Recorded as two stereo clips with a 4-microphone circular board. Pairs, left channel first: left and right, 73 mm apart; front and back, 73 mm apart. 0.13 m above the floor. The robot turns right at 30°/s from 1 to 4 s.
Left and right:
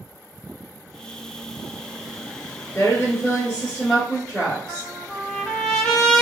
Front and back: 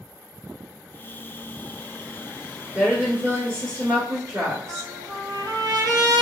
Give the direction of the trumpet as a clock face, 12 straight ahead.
6 o'clock.